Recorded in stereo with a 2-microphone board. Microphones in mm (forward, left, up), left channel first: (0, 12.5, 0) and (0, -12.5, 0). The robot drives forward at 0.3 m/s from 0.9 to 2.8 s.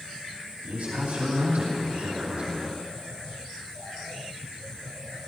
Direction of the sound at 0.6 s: 85° right.